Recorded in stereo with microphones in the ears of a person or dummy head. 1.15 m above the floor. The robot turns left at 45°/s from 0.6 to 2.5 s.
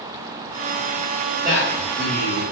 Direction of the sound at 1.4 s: 155° right.